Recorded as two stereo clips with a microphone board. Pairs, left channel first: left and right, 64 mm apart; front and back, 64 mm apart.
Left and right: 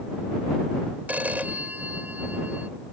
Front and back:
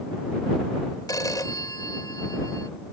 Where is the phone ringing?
25° right.